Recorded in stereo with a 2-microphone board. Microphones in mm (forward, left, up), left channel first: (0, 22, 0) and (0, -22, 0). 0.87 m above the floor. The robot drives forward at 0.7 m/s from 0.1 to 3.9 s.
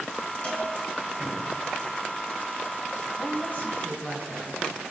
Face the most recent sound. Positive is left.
turn(degrees=35)  # may be behind; listen again after turning